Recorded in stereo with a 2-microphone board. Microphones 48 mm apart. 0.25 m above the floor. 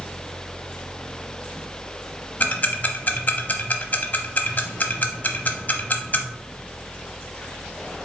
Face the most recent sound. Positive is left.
turn(degrees=35)  # may be behind; listen again after turning